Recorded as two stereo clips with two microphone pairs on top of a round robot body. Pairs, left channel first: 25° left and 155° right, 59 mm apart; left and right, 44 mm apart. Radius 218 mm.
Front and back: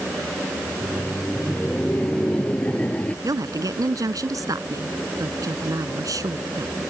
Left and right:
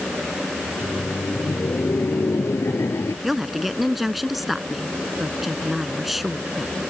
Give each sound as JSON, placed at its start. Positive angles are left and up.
{"t": 0.7, "sound": "laughter", "azimuth_deg": 105}
{"t": 3.2, "sound": "a woman speaking", "azimuth_deg": -175}